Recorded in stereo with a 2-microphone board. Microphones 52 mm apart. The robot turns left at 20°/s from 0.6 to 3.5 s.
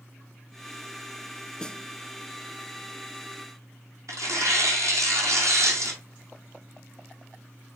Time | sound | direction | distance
1.6 | a snare drum | 15° left (ahead or behind) | 0.5 m
4.1 | tearing paper | 75° right (ahead or behind) | 2 m